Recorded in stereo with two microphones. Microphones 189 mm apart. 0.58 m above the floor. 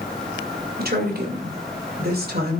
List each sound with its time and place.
0.8 s a woman speaking: 55° right (ahead or behind), 2.5 m